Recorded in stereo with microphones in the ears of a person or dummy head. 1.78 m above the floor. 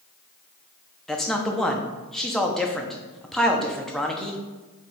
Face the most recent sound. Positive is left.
turn(degrees=5)  # may be behind; listen again after turning